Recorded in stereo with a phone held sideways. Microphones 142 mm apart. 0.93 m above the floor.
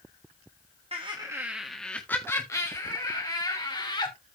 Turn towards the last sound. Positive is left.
turn(degrees=35)  # may be behind; listen again after turning